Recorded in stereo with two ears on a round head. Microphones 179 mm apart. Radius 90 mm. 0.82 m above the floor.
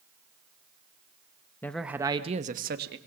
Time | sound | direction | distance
1.6 | a man speaking | 10° left (ahead or behind) | 1.1 m